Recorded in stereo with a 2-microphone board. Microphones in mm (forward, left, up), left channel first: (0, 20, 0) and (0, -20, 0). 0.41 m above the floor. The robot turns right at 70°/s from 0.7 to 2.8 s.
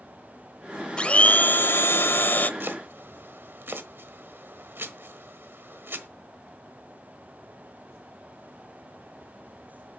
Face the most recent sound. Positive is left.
turn(degrees=-60)  # may be behind; listen again after turning